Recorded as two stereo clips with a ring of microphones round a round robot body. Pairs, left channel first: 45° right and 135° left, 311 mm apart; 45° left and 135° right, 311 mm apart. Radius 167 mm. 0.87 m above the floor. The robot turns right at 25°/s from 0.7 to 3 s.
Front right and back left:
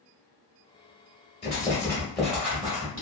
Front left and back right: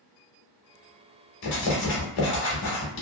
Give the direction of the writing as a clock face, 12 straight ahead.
11 o'clock.